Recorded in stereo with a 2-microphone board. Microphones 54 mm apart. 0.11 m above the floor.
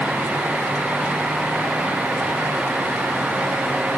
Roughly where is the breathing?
I don't hear breathing.